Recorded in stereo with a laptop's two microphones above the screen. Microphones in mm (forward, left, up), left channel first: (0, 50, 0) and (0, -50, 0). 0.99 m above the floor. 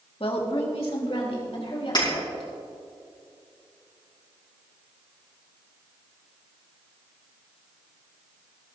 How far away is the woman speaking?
About 1.5 m.